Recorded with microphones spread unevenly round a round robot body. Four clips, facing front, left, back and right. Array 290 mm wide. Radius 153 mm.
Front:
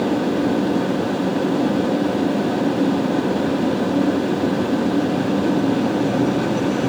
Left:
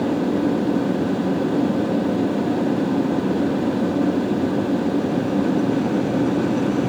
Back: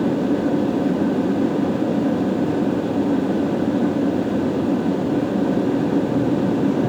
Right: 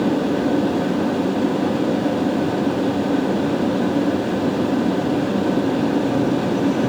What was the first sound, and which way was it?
Only background noise.